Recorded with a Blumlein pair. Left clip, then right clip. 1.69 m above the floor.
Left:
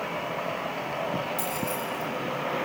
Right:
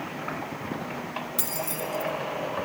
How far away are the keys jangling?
About 3.5 m.